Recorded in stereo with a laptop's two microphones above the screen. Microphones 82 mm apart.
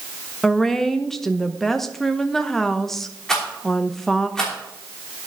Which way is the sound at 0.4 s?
5° left (ahead or behind).